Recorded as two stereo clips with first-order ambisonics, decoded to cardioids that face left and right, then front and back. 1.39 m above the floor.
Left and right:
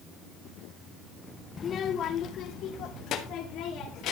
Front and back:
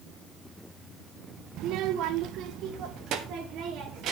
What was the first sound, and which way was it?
A child speaking, 150° left.